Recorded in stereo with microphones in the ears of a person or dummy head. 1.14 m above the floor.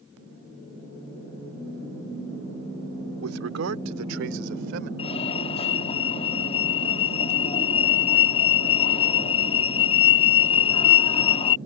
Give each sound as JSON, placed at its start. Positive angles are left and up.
{"t": 3.2, "sound": "a man speaking", "side_deg": -80}
{"t": 5.0, "sound": "a fire alarm", "side_deg": 30}